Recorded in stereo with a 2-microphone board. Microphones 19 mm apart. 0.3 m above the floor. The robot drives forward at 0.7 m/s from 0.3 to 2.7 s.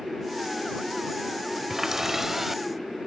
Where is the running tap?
25° right (ahead or behind); by 2.6 s 15° right (ahead or behind).